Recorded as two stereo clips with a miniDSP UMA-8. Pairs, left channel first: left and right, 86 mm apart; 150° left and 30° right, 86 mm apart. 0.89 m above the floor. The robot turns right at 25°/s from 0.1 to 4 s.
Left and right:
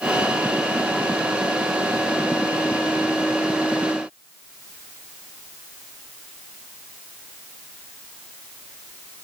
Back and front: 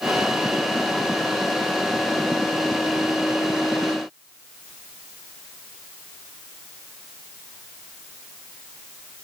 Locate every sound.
Only background noise.